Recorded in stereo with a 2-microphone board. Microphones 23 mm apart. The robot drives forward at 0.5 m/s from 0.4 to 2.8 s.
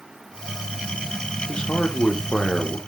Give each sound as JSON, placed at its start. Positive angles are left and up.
{"t": 1.5, "sound": "a man speaking", "side_deg": 40, "distance_m": 0.9}